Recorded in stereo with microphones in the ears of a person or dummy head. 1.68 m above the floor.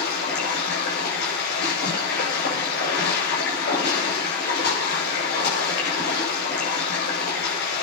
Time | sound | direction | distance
0.0 | running water | 55° left (ahead or behind) | 7.5 m